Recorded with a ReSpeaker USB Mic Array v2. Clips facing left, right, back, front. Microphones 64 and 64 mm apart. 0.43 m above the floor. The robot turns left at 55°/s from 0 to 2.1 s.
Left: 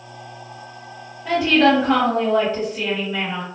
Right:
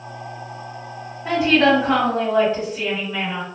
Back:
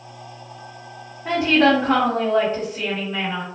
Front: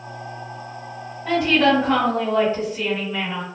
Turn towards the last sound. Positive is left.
turn(degrees=165)